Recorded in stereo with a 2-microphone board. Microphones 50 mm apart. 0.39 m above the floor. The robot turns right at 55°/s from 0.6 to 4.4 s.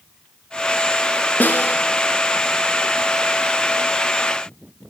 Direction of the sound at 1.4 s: 35° left (ahead or behind).